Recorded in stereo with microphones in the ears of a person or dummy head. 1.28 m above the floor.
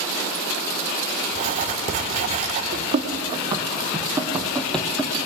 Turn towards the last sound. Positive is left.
turn(degrees=15)  # may be behind; listen again after turning